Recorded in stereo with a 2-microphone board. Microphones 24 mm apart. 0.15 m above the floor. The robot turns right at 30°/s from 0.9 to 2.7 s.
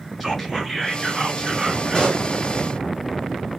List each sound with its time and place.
0.2 s whispering: 165° left, 1.9 m; by 2.2 s 155° right, 1.9 m
1.9 s a pop: 35° left (ahead or behind), 2.0 m